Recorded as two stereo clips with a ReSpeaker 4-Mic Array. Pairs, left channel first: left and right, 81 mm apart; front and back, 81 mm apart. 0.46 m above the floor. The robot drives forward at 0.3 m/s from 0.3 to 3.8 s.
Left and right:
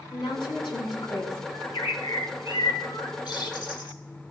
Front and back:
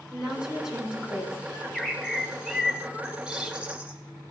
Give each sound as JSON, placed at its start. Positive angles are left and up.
{"t": 0.1, "sound": "a woman speaking", "azimuth_deg": 95, "distance_m": 5.5}
{"t": 1.5, "sound": "a bird", "azimuth_deg": 80, "distance_m": 1.6}